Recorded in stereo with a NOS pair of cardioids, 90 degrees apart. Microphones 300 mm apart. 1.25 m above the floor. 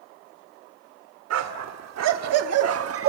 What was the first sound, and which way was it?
A dog barking, 65° right.